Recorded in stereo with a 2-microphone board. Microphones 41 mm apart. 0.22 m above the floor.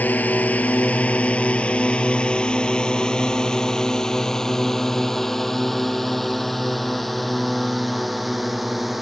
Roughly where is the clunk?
No clunk in this recording.